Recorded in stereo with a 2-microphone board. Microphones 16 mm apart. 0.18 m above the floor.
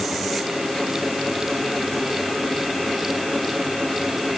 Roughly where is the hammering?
No hammering in this recording.